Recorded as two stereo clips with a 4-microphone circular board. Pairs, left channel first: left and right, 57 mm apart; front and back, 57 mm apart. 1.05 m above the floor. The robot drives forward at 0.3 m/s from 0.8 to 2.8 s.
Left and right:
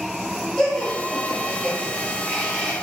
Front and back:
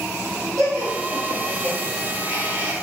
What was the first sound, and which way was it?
Laughter, 175° left.